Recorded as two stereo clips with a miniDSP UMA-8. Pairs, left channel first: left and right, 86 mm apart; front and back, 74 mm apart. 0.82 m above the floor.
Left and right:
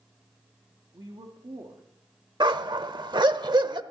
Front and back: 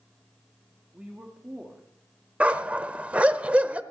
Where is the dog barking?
110° right, 0.9 m.